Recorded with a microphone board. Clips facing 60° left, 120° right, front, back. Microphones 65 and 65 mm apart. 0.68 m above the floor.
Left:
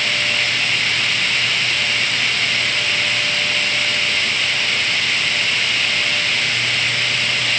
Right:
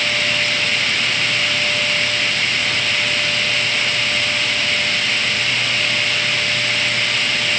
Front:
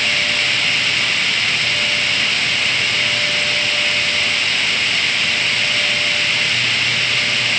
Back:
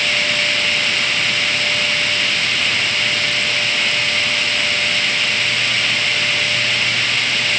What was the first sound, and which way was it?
Only background noise.